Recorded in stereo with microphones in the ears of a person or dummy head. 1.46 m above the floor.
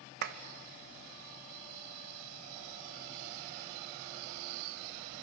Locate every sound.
0.2 s a clap: 60° right (ahead or behind), 1.0 m